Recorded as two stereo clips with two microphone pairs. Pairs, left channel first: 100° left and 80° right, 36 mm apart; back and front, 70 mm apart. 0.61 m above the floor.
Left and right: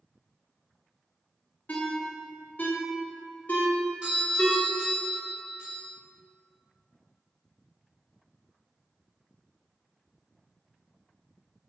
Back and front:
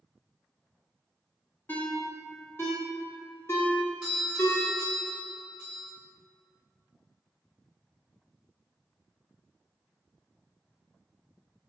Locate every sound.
1.7 s a ringtone: 130° left, 1.0 m
4.0 s a doorbell: 75° right, 1.8 m